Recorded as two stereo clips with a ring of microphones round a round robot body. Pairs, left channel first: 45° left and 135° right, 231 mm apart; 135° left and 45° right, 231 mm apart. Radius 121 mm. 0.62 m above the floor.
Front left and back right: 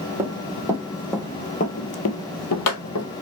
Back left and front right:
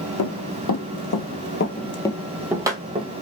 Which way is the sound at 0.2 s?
150° left.